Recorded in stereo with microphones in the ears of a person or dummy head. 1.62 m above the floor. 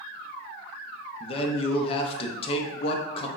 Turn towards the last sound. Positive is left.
turn(degrees=40)  # may be behind; listen again after turning